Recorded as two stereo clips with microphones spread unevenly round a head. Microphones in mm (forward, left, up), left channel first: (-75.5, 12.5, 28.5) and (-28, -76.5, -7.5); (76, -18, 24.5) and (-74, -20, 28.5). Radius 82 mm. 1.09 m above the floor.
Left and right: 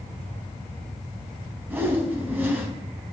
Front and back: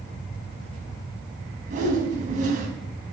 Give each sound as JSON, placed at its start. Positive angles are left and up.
{"t": 1.7, "sound": "a whoosh", "azimuth_deg": -140, "distance_m": 3.5}